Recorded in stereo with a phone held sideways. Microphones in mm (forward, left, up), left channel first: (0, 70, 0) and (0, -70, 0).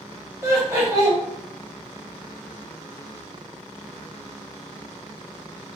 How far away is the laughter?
About 0.8 m.